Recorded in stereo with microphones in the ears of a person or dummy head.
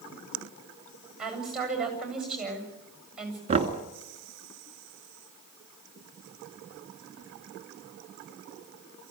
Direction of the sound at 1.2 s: Centre (ahead or behind).